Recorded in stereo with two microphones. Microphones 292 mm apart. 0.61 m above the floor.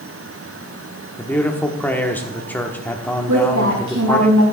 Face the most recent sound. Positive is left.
turn(degrees=-80)